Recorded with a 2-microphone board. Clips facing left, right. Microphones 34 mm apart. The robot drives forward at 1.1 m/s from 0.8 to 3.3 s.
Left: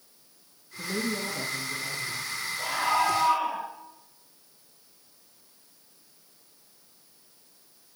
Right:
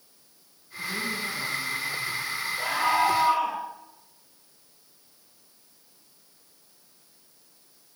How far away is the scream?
About 7.5 m.